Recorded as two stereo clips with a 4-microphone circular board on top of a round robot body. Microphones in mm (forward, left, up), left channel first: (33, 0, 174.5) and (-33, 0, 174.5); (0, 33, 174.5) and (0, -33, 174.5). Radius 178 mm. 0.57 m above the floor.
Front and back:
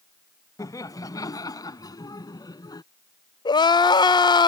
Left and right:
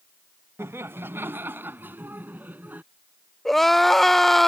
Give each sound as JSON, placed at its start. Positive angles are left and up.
{"t": 0.6, "sound": "laughter", "azimuth_deg": -35}
{"t": 3.5, "sound": "crying", "azimuth_deg": 0}